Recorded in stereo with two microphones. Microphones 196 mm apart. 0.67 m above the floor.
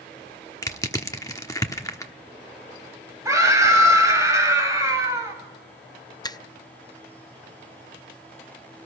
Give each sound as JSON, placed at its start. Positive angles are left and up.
{"t": 0.6, "sound": "crushing", "side_deg": 15, "distance_m": 1.1}
{"t": 3.2, "sound": "a scream", "side_deg": -15, "distance_m": 4.5}
{"t": 6.2, "sound": "a finger snap", "side_deg": 20, "distance_m": 0.5}